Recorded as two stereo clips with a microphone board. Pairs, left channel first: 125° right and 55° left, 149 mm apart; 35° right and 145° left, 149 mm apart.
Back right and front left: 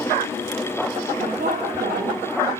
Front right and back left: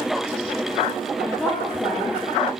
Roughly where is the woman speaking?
Ahead left.